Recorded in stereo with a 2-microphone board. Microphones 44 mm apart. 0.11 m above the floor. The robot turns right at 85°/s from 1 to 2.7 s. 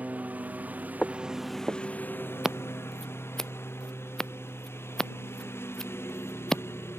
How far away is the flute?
No flute in this recording.